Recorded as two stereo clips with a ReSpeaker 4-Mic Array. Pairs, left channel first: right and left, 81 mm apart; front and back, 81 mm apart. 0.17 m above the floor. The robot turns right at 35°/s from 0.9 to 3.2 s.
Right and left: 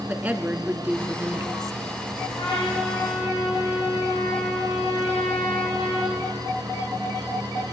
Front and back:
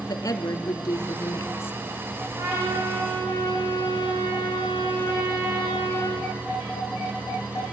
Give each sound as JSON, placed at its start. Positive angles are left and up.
{"t": 0.1, "sound": "a woman speaking", "azimuth_deg": 25, "distance_m": 1.6}
{"t": 2.4, "sound": "a trumpet", "azimuth_deg": -130, "distance_m": 8.5}